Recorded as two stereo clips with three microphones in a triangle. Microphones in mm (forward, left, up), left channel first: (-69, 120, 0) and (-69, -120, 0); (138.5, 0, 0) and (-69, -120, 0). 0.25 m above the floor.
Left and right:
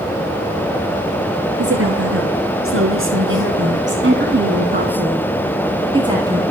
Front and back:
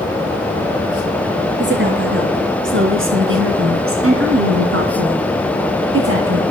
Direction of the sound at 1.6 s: 110° right.